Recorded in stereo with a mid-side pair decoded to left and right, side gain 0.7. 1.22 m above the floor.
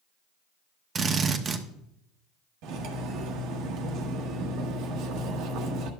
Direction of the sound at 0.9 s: 30° right.